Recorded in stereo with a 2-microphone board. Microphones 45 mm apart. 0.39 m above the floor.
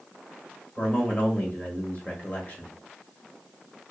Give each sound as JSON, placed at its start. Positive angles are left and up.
{"t": 0.8, "sound": "a man speaking", "side_deg": 30, "distance_m": 1.6}